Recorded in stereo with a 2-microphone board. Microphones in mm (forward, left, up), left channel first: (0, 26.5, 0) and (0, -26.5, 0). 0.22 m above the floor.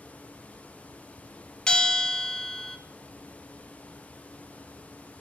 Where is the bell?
20° left (ahead or behind), 0.8 m.